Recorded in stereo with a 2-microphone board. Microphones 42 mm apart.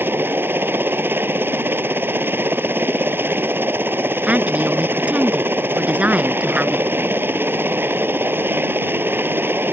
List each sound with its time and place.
0.0 s a helicopter: 65° right (ahead or behind)
4.3 s a woman speaking: 35° right (ahead or behind)